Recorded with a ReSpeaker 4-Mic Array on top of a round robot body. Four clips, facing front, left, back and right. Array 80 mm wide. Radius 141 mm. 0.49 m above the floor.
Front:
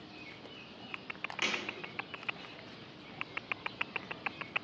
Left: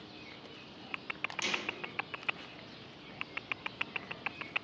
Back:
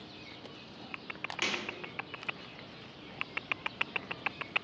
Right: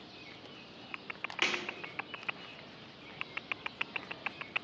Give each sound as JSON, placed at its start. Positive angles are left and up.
{"t": 1.4, "sound": "a snare drum", "azimuth_deg": -95, "distance_m": 1.2}